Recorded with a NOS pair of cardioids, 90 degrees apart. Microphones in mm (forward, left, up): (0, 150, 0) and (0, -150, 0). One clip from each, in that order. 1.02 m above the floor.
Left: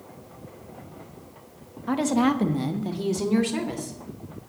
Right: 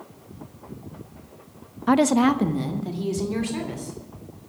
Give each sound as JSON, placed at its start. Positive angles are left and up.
{"t": 1.9, "sound": "a woman speaking", "azimuth_deg": -45, "distance_m": 0.7}